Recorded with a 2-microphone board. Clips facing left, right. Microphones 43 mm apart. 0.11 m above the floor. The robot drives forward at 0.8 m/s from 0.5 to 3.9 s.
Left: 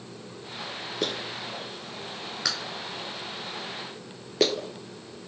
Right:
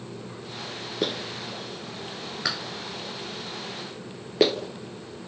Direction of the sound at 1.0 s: 10° right (ahead or behind).